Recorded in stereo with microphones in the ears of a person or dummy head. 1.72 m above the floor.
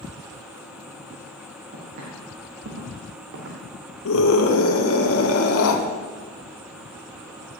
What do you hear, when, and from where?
1.7 s footsteps: 50° right (ahead or behind), 3.5 m; by 3.8 s 65° right (ahead or behind), 4 m
4.0 s a scream: 85° left, 1.4 m